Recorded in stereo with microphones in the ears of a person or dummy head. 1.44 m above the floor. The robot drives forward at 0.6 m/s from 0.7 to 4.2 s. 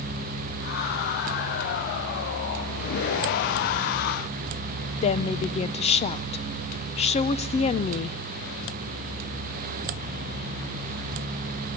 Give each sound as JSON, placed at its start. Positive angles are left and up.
{"t": 5.0, "sound": "a woman speaking", "side_deg": 35, "distance_m": 0.7}